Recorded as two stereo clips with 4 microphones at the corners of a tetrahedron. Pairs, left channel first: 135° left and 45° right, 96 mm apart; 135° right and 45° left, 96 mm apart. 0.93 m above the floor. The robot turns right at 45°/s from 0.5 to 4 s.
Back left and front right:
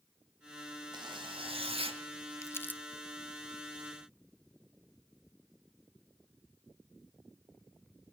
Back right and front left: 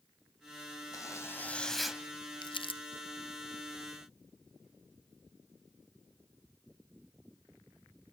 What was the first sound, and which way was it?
A zipper, 85° right.